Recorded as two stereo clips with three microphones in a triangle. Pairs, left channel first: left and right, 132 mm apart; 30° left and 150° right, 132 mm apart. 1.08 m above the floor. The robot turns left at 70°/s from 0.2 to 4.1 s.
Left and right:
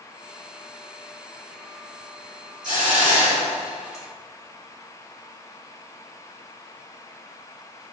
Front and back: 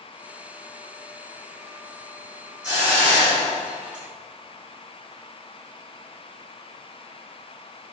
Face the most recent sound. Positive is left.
turn(degrees=-170)